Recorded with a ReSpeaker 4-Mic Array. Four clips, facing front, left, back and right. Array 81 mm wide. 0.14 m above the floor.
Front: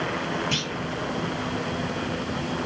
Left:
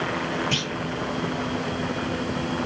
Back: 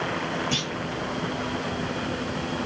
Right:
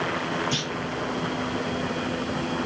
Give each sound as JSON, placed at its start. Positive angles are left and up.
{"t": 0.5, "sound": "a clunk", "azimuth_deg": 50, "distance_m": 3.5}